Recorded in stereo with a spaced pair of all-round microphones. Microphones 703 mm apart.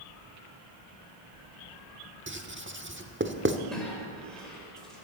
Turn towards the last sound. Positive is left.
turn(degrees=0)  # may be behind; listen again after turning